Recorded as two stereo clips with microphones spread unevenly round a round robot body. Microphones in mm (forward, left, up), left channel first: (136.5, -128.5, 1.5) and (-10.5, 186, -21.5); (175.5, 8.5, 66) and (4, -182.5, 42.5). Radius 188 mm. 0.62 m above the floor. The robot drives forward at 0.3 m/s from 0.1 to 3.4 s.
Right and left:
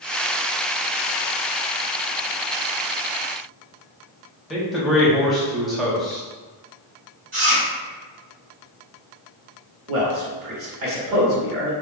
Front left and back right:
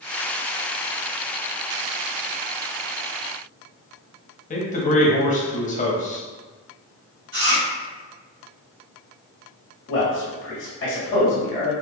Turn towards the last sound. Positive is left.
turn(degrees=85)